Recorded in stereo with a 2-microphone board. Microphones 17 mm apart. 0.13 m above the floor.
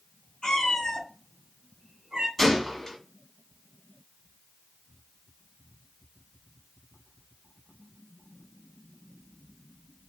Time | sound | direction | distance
0.4 | a cat meowing | 50° left (ahead or behind) | 1.3 m
2.4 | a gunshot | 20° left (ahead or behind) | 1.6 m